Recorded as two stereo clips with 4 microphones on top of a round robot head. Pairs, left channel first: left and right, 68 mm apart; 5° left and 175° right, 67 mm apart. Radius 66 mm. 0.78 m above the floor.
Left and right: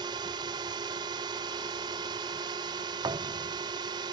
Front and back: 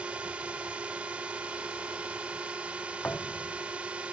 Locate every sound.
0.0 s a drone: 100° right
3.0 s a thud: 70° right